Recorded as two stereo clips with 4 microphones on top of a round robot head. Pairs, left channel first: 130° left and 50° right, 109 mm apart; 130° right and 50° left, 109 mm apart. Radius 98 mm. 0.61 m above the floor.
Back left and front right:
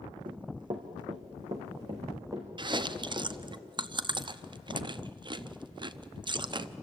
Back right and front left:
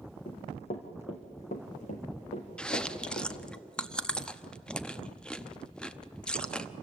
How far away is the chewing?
About 0.9 m.